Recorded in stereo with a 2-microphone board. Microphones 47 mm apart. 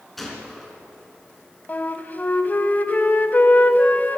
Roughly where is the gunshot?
Centre.